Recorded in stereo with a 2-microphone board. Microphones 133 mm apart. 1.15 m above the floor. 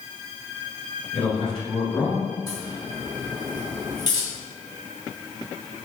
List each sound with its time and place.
1.1 s a man speaking: 55° left (ahead or behind), 1.5 m; by 2.2 s 10° left (ahead or behind), 2.5 m
2.5 s a crack: 30° left (ahead or behind), 1.8 m